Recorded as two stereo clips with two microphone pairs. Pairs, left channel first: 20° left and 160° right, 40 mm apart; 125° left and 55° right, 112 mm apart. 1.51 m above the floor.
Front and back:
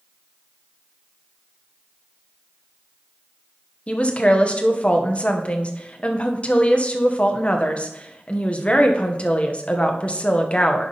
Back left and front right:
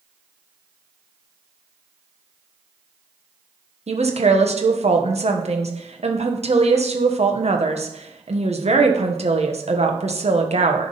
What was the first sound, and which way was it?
A woman speaking, 40° right.